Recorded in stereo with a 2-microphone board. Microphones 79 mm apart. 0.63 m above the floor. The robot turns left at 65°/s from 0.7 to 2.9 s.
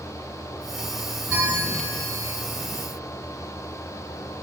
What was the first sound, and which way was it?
A bell, 25° right.